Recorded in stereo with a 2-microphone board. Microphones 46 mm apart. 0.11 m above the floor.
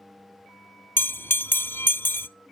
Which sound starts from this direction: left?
A bell, at 1.0 s.